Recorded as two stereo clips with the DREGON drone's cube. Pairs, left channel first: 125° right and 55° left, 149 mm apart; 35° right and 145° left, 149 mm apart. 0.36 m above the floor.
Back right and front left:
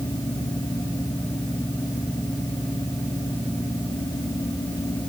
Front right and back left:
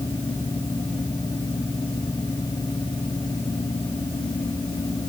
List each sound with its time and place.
Only background noise.